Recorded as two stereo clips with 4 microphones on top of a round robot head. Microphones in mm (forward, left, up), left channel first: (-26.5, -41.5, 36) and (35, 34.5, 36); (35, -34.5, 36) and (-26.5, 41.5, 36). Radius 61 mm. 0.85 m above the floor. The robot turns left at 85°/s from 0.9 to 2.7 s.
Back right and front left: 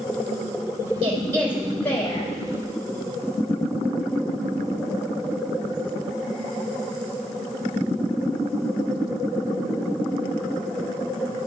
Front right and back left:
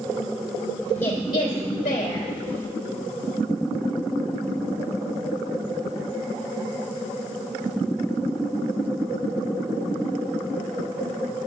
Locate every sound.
1.0 s a woman speaking: 15° left, 3 m; by 2.3 s 95° right, 3 m